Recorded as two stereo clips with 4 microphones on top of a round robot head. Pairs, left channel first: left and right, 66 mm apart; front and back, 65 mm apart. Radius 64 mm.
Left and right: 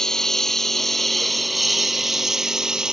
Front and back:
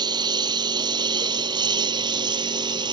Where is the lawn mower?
170° left; by 2.9 s 170° right.